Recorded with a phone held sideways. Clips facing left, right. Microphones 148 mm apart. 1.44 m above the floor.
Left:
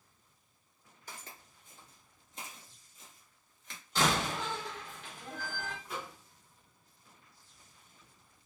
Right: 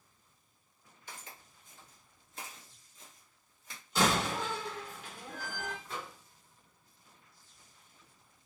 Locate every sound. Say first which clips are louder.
1.1 s footsteps: even; 45° left (ahead or behind), 1.8 m; by 3.8 s 10° right (ahead or behind), 1.6 m
4.0 s a door slam: right 1 dB; 5° right (ahead or behind), 1.6 m
5.8 s a microwave: left 1 dB; 10° left (ahead or behind), 1.3 m